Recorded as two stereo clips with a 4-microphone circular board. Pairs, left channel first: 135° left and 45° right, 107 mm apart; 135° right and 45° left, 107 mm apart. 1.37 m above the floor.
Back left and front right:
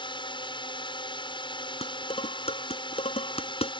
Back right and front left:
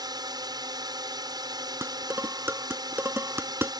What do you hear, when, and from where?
0.0 s a drone: 95° left
1.8 s dishes clattering: 115° left